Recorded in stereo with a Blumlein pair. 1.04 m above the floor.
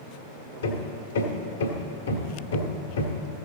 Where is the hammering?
65° left, 1.6 m.